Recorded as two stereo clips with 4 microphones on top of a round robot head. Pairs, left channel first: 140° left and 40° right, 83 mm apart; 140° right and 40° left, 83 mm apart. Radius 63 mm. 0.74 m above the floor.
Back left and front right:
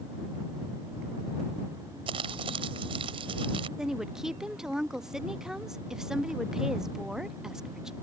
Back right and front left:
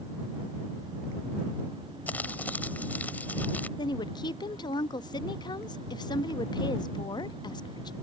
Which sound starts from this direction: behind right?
A woman speaking, at 3.8 s.